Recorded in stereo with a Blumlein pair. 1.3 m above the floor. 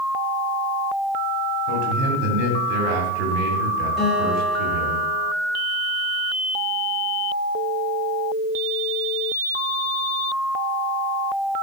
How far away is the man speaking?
About 2.5 m.